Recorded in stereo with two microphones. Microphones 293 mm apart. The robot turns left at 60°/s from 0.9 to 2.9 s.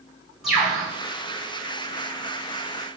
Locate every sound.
0.4 s a bird: centre (ahead or behind), 1.8 m